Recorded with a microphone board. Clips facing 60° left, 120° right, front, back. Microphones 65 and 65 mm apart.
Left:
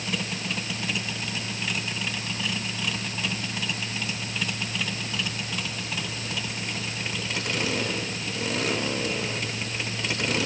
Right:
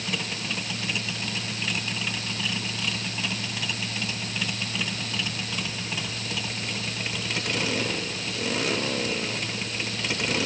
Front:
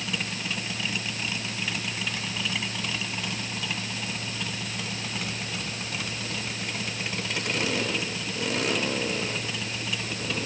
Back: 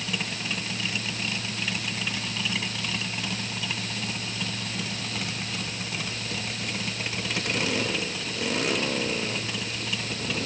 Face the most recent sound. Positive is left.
No sound to turn to.